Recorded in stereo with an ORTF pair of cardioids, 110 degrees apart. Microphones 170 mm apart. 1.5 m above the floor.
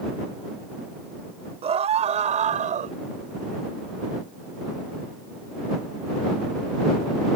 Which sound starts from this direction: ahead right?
A scream, at 1.6 s.